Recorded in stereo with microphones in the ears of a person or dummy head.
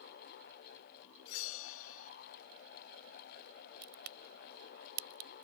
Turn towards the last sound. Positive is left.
turn(degrees=-55)  # may be behind; listen again after turning